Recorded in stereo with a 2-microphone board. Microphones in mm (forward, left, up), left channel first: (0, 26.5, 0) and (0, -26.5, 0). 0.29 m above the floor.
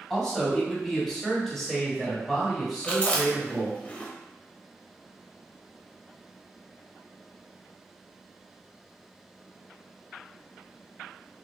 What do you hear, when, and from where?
0.1 s a man speaking: 10° left (ahead or behind), 1.5 m; by 3.8 s 5° right (ahead or behind), 1.5 m
2.8 s chewing: 25° left (ahead or behind), 0.7 m